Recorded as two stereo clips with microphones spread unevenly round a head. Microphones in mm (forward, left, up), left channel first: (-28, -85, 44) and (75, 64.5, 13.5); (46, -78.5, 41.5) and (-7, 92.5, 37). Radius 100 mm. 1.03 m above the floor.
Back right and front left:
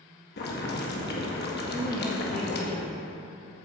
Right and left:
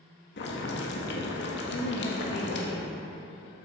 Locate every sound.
0.4 s boiling: 95° right, 1.8 m
1.7 s a woman speaking: 35° right, 1.5 m